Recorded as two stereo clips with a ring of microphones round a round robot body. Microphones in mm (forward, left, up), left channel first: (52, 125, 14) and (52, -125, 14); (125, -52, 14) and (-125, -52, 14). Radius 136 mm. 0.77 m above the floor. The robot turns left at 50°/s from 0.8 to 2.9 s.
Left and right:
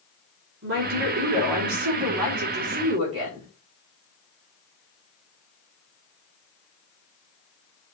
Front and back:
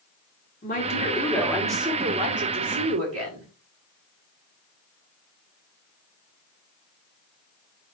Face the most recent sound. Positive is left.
turn(degrees=-160)